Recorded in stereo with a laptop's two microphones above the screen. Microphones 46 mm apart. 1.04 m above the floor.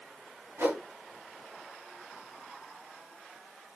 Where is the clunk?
I don't hear a clunk.